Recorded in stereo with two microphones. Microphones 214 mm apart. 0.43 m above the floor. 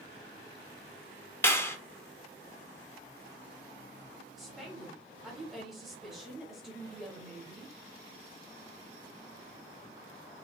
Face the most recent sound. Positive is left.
turn(degrees=0)  # may be behind; listen again after turning